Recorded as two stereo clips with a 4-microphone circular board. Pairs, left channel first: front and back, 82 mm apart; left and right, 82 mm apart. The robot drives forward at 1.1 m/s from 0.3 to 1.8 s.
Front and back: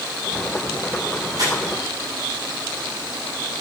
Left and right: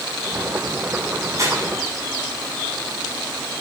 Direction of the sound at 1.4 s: 140° right.